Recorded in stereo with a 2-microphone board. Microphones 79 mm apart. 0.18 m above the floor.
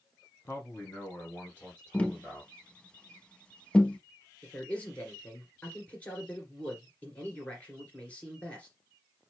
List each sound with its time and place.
0.5 s a man speaking: 30° left (ahead or behind), 2 m; by 2.5 s centre (ahead or behind), 3 m
1.9 s tapping: 15° left (ahead or behind), 0.7 m
4.4 s a man speaking: 15° left (ahead or behind), 2.5 m